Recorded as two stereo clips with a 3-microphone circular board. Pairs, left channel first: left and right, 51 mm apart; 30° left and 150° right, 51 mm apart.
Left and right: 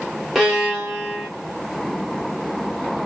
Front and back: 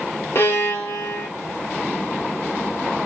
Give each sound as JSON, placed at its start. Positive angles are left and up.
{"t": 0.3, "sound": "a violin", "azimuth_deg": 0, "distance_m": 2.0}